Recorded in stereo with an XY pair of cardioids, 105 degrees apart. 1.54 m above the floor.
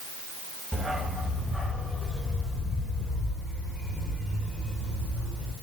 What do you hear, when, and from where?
0.7 s a dog barking: straight ahead, 5 m; by 5.5 s 50° left, 7 m